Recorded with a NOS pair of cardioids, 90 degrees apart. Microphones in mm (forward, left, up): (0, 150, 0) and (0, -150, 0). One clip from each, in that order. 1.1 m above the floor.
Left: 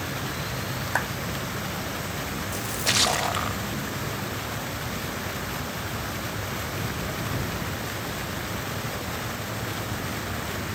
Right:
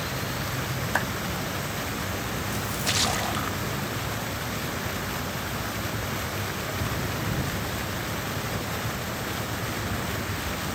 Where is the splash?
20° left.